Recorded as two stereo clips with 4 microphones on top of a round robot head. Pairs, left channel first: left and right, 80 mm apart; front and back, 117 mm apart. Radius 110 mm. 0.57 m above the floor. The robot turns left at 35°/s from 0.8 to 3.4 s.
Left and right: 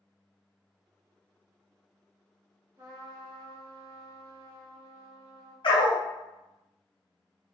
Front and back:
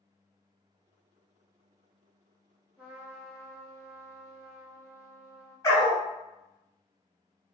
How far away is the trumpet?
About 1.2 m.